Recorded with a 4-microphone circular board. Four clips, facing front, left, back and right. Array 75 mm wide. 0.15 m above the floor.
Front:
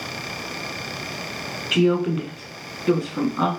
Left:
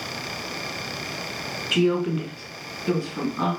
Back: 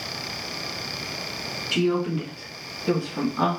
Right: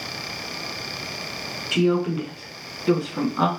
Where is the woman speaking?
15° left, 1.3 m; by 3.5 s 75° right, 1.2 m.